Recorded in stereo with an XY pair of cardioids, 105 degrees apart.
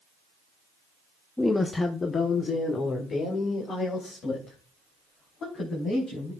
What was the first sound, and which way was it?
A woman speaking, 5° left.